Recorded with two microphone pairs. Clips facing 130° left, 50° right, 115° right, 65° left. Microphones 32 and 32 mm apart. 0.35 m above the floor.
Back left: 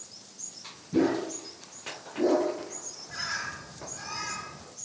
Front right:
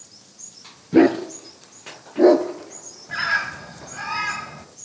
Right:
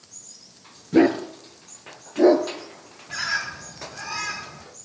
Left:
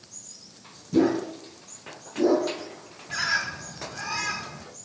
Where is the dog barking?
85° right, 2.5 m.